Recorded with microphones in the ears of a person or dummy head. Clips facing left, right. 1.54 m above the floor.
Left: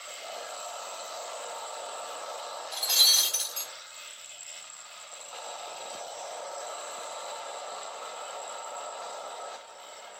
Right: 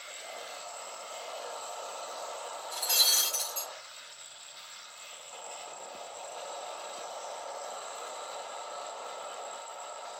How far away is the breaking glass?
About 1.7 m.